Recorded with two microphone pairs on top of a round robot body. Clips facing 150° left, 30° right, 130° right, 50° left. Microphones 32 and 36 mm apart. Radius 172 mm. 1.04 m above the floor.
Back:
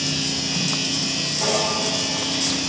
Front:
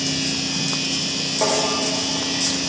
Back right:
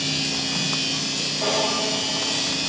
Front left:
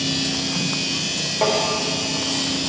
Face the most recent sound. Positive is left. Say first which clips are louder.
# front 2 dB, front left 5 dB
turn(degrees=10)